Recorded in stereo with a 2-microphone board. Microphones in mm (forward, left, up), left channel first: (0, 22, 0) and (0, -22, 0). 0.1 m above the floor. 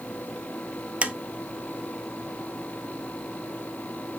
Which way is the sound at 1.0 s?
30° right (ahead or behind).